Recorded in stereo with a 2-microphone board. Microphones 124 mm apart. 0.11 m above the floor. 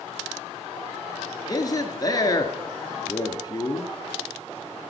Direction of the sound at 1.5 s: 30° left (ahead or behind).